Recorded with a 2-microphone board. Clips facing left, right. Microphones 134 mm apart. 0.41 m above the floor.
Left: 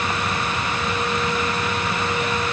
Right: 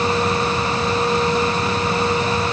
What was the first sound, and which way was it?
Only background noise.